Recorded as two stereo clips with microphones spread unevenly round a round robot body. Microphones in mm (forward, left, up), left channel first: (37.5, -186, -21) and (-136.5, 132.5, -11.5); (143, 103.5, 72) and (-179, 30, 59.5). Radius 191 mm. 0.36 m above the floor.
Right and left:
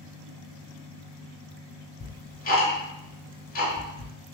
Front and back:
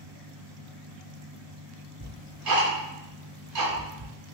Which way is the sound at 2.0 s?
130° right.